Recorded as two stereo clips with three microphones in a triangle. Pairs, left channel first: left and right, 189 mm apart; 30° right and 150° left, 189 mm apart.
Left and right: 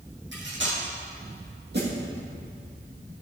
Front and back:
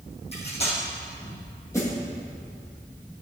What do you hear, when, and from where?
0.3 s cutlery clinking: 85° right, 3.5 m
1.7 s a snare drum: 105° right, 3.5 m